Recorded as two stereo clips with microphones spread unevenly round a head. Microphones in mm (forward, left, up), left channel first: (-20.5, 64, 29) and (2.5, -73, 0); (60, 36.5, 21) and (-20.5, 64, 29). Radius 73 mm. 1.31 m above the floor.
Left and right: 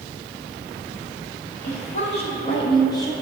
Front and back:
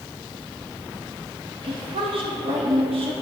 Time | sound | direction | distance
1.6 | a woman speaking | 140° left | 2.5 m